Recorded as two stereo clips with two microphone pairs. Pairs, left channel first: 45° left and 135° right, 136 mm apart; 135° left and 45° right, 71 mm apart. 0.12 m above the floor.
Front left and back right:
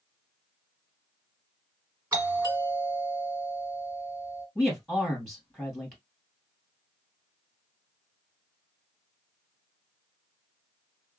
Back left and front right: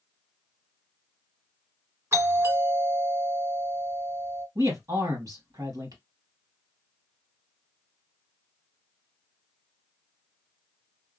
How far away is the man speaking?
About 2 m.